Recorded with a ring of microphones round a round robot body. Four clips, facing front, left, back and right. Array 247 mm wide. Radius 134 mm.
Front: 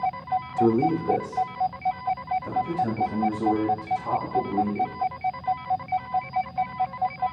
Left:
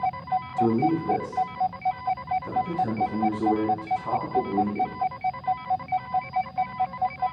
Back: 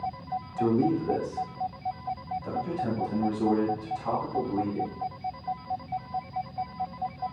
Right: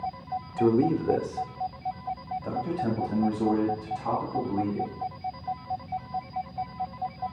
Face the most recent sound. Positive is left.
turn(degrees=-105)